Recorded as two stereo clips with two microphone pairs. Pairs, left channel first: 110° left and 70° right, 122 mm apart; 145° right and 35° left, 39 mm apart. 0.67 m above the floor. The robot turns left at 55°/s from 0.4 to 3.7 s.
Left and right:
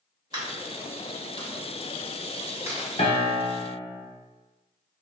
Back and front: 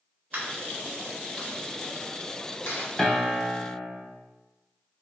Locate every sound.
0.3 s a dropped coin: 15° right, 0.9 m; by 2.9 s 155° right, 0.9 m
3.0 s a piano: 140° left, 1.0 m; by 3.7 s 100° left, 1.0 m